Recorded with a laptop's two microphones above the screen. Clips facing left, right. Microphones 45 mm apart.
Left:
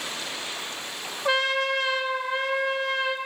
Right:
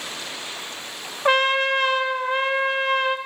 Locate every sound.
1.2 s a trumpet: 50° right (ahead or behind), 0.5 m